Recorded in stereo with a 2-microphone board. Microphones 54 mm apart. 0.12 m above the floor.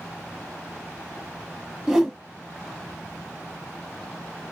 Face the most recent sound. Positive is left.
turn(degrees=-5)  # may be behind; listen again after turning